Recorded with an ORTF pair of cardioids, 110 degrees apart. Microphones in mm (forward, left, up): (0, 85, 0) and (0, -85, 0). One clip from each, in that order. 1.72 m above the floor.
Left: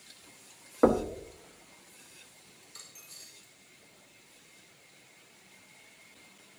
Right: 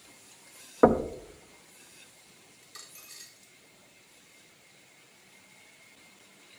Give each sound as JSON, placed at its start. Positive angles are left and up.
{"t": 0.8, "sound": "knocking", "azimuth_deg": -20, "distance_m": 0.9}
{"t": 2.6, "sound": "a dropped coin", "azimuth_deg": -35, "distance_m": 4.0}